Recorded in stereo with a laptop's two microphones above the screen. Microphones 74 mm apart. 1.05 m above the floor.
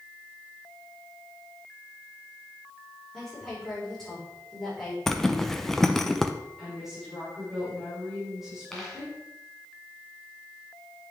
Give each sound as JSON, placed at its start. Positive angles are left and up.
{"t": 3.1, "sound": "a woman speaking", "side_deg": 5, "distance_m": 4.5}
{"t": 5.1, "sound": "a zipper", "side_deg": 5, "distance_m": 0.6}
{"t": 6.6, "sound": "a woman speaking", "side_deg": -5, "distance_m": 3.0}
{"t": 8.7, "sound": "a dropped coin", "side_deg": 5, "distance_m": 1.9}